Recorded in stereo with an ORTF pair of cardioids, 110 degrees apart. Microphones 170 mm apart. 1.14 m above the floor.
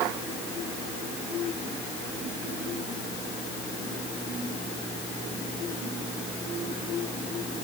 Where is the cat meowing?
No cat meowing in this recording.